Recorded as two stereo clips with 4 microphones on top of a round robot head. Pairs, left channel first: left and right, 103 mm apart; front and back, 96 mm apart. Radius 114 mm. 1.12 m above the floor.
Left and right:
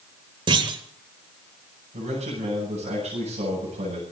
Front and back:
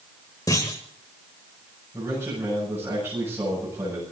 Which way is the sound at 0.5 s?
70° right.